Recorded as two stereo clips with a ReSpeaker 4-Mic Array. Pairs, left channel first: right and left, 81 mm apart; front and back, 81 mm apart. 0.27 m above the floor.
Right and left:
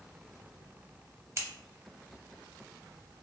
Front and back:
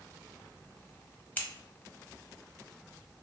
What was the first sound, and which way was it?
Scissors, 60° left.